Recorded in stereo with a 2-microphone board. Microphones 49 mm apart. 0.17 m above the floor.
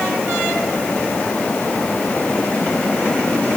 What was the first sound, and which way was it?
Only background noise.